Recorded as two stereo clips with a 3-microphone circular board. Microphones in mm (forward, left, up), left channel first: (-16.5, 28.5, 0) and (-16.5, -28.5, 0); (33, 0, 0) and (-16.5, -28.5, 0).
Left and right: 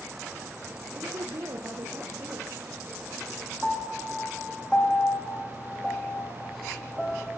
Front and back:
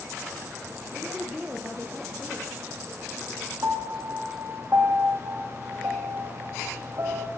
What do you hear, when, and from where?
0.9 s a woman speaking: 70° right, 3.5 m
3.6 s a piano: 165° left, 4 m